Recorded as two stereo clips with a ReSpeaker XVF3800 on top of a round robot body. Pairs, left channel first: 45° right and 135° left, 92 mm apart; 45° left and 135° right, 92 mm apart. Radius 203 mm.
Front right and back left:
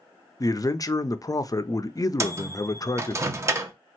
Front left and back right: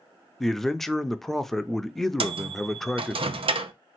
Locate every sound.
0.4 s a man speaking: 40° right, 0.7 m
2.2 s a microwave: 160° right, 0.6 m